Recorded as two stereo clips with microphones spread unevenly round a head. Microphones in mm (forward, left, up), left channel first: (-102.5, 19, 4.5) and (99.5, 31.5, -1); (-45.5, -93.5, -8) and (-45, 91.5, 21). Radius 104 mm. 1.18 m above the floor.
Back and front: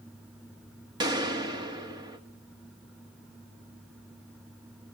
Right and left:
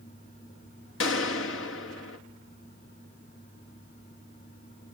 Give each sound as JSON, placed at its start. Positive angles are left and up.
{"t": 1.0, "sound": "a gunshot", "azimuth_deg": -65, "distance_m": 1.9}